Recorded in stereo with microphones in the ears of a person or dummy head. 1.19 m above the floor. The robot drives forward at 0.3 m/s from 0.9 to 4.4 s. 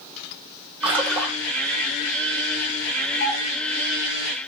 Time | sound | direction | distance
0.8 | a splash | 5° right (ahead or behind) | 0.9 m
3.2 | a doorbell | 75° left (ahead or behind) | 3 m